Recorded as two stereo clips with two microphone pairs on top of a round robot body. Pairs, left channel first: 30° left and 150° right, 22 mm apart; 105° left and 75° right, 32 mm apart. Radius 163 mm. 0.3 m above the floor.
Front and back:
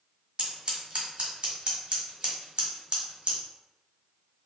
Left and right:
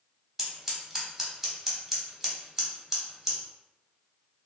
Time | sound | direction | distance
0.4 | scissors | 165° right | 1.3 m